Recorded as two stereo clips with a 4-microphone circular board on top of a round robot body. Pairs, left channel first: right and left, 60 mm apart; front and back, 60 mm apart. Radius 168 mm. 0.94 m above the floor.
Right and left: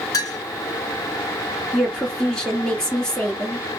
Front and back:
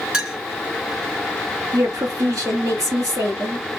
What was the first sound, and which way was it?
A clink, 105° right.